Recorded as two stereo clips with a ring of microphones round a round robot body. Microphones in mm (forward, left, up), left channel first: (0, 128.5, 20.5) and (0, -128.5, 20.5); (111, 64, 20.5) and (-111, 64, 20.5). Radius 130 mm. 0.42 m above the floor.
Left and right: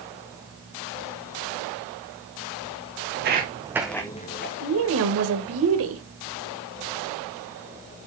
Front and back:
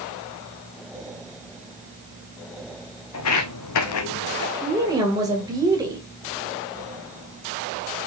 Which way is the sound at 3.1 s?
40° right.